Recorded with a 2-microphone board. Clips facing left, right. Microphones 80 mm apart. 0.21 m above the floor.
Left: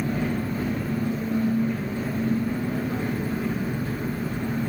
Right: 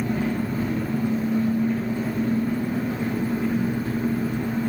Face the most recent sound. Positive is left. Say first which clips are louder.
# right 2 dB
turn(degrees=-30)  # may be behind; listen again after turning